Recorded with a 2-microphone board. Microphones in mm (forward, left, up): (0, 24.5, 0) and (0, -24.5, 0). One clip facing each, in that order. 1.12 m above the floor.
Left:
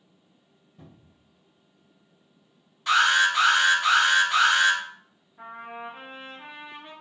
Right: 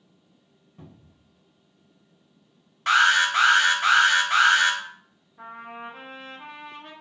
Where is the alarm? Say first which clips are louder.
Right 1 dB; 55° right (ahead or behind), 1.1 m.